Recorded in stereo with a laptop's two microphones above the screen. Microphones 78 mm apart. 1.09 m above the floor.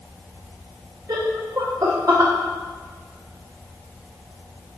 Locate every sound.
1.1 s laughter: 50° right (ahead or behind), 0.6 m